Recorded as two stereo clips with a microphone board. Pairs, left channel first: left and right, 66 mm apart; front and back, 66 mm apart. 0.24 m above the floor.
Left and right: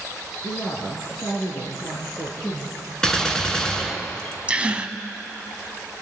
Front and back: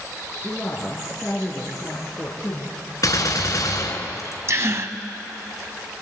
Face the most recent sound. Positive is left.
turn(degrees=-155)